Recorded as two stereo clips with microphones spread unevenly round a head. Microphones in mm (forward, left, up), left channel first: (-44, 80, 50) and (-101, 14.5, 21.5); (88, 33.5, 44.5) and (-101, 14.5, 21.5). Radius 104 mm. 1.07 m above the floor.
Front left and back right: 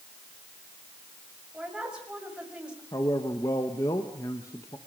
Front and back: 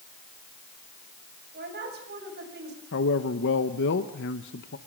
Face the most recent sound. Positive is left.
turn(degrees=-20)